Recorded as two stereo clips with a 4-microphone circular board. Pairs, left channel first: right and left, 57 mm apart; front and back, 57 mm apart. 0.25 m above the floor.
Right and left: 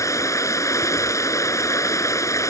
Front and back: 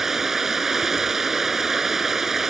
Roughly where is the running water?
Right.